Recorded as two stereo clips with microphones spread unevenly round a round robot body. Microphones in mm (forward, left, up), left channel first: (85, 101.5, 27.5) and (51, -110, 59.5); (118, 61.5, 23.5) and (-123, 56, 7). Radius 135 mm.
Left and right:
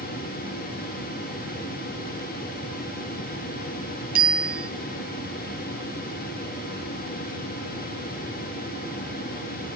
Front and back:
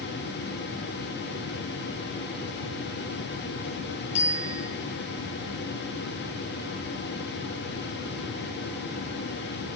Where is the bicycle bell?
55° right, 8.5 m.